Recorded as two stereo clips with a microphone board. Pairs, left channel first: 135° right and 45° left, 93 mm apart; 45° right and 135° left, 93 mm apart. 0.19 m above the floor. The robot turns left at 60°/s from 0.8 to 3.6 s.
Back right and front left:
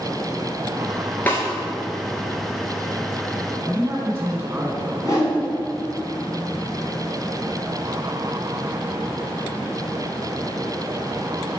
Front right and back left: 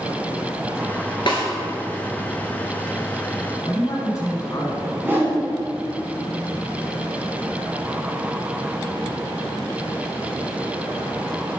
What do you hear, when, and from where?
1.3 s a snare drum: 65° right, 1.5 m; by 1.4 s 75° right, 1.5 m
3.6 s a man speaking: 15° right, 1.5 m
5.0 s a whoosh: 160° right, 1.7 m